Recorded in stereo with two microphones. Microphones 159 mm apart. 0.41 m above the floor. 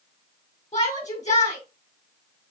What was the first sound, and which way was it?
A shout, 45° left (ahead or behind).